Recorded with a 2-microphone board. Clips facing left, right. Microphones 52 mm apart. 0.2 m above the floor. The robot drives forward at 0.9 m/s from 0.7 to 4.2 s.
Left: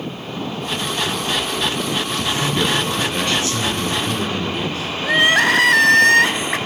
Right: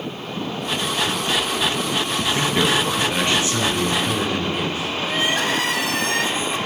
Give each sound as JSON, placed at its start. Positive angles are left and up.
{"t": 2.2, "sound": "a man speaking", "side_deg": -30, "distance_m": 1.5}
{"t": 5.0, "sound": "crying", "side_deg": 75, "distance_m": 0.5}